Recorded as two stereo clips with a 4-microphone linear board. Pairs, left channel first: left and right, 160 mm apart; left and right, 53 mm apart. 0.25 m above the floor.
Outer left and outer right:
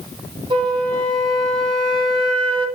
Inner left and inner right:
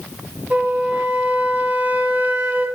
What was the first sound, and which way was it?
A flute, 30° right (ahead or behind).